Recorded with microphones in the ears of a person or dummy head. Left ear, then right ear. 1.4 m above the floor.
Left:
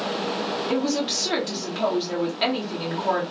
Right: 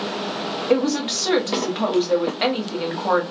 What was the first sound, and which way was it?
A woman speaking, 30° right (ahead or behind).